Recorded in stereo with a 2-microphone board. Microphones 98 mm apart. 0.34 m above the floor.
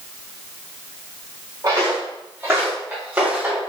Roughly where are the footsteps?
Right.